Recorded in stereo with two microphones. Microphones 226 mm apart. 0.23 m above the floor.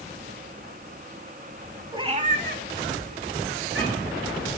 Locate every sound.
1.9 s a cat meowing: 20° right (ahead or behind), 0.7 m; by 4.2 s 75° right (ahead or behind), 2 m